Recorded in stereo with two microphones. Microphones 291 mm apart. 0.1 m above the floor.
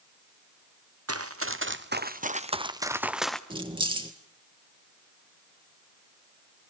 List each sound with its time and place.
1.1 s running footsteps: 55° right (ahead or behind), 1.6 m; by 3.4 s centre (ahead or behind), 1.5 m
3.5 s keys jangling: 15° right (ahead or behind), 1.7 m